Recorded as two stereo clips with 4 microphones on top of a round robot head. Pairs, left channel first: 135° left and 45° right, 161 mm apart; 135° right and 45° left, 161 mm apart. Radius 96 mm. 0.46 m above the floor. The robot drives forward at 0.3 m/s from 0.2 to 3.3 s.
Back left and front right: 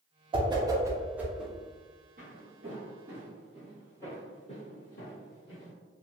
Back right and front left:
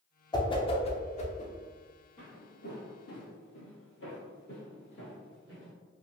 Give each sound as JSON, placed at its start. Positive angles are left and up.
{"t": 0.3, "sound": "a whoosh", "azimuth_deg": -85, "distance_m": 0.6}
{"t": 2.2, "sound": "footsteps", "azimuth_deg": -95, "distance_m": 1.4}